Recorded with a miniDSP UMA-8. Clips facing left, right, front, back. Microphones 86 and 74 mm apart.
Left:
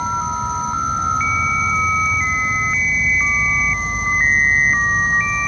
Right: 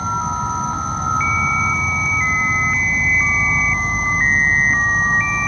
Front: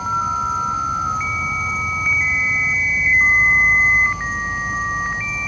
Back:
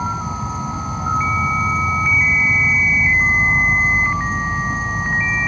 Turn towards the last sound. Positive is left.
turn(degrees=-135)